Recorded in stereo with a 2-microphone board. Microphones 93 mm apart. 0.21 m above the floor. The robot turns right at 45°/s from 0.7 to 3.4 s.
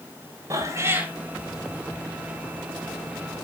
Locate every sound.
0.5 s a cat meowing: 35° right (ahead or behind), 1.1 m; by 1.1 s 15° right (ahead or behind), 1.1 m